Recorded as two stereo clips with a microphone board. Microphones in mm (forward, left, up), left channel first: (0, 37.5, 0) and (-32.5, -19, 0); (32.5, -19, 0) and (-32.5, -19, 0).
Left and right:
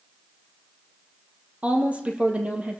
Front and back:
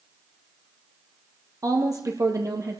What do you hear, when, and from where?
1.6 s a woman speaking: 175° left, 2.5 m